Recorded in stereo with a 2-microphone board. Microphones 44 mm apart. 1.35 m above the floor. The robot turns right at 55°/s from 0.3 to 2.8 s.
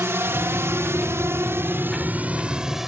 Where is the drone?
70° right (ahead or behind); by 2.9 s 10° right (ahead or behind).